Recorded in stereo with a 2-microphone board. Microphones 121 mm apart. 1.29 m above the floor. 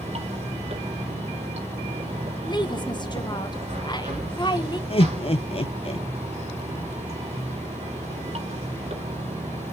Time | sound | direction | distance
0.0 | running water | 65° right (ahead or behind) | 3.5 m
2.4 | a woman speaking | 35° left (ahead or behind) | 1.3 m
4.9 | laughter | 50° left (ahead or behind) | 0.6 m